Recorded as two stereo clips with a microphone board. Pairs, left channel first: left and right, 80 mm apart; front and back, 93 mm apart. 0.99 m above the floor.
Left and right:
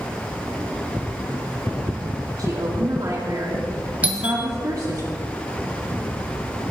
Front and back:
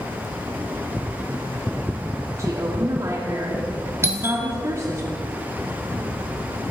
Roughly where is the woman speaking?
Behind right.